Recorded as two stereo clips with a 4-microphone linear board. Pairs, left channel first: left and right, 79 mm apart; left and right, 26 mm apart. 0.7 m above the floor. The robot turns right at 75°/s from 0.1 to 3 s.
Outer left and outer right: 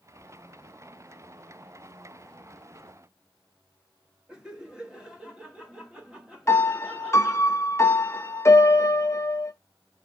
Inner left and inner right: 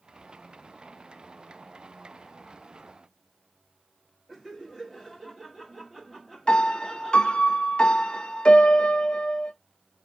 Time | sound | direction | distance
4.3 | laughter | 10° right (ahead or behind) | 1.2 m
6.5 | a piano | 35° left (ahead or behind) | 0.5 m